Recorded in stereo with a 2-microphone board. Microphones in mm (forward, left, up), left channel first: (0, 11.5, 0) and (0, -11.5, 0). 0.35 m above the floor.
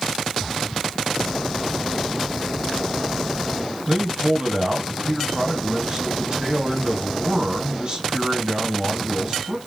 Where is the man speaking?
35° right (ahead or behind), 2 m.